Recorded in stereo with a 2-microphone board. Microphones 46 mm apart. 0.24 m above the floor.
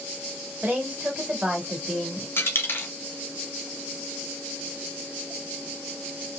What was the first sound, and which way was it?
A woman speaking, 30° right (ahead or behind).